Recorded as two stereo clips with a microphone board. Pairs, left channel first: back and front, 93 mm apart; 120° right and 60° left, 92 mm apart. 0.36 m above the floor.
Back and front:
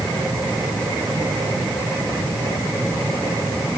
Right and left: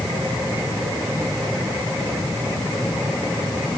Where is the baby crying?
I don't hear a baby crying.